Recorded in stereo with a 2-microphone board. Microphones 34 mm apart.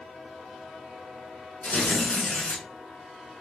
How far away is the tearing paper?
About 1.3 m.